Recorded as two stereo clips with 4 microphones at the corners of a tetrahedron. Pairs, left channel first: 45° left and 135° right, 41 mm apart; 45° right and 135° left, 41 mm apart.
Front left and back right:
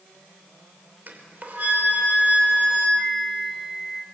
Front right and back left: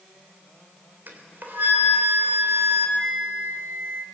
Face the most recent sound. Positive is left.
turn(degrees=135)